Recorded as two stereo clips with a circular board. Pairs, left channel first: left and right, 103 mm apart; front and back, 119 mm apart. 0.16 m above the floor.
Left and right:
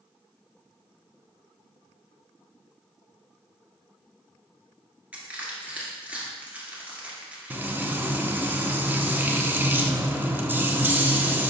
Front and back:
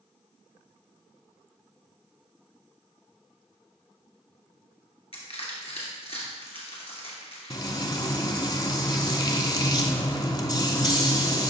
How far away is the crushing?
About 2 m.